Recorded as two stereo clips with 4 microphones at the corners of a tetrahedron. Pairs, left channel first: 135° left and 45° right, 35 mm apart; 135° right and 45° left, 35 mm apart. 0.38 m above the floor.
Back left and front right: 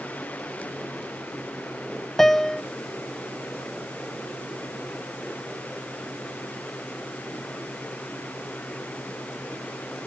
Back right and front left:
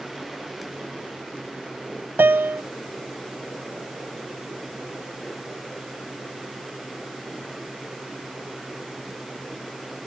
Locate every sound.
2.2 s a piano: 55° left